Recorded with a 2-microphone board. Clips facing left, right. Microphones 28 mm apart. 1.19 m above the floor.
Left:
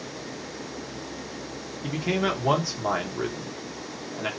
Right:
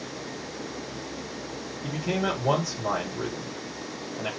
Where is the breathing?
No breathing in this recording.